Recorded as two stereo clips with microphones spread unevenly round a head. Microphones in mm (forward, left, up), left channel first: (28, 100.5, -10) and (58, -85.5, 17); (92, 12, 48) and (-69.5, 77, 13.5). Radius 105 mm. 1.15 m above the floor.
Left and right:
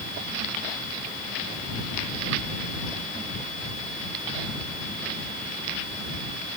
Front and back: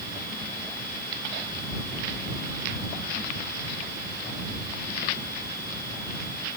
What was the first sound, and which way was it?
Only background noise.